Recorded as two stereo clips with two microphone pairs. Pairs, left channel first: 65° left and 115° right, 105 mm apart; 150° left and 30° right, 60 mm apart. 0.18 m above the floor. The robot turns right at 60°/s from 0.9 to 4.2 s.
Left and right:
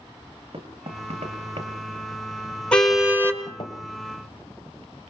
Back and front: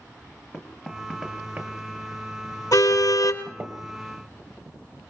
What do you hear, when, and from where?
0.5 s knocking: 140° right, 2.5 m; by 3.7 s 25° left, 2.5 m
2.7 s a car horn: 145° left, 2.5 m; by 3.4 s 175° right, 2.5 m